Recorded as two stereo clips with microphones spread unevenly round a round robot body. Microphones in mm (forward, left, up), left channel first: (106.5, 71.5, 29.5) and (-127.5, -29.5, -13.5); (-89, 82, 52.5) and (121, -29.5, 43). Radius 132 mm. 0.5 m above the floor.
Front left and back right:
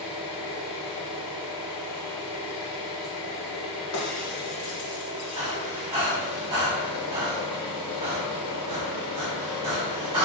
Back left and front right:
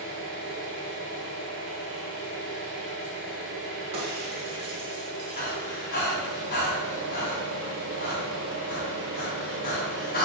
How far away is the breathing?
About 1.3 m.